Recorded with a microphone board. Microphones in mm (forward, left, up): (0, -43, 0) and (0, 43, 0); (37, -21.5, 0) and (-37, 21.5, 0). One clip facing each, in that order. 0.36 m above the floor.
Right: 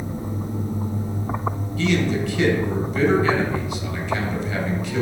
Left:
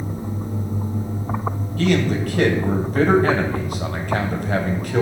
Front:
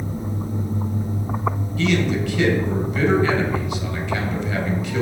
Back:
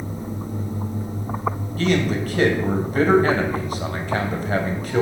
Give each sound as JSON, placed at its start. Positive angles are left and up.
{"t": 1.8, "sound": "a man speaking", "azimuth_deg": 115, "distance_m": 1.9}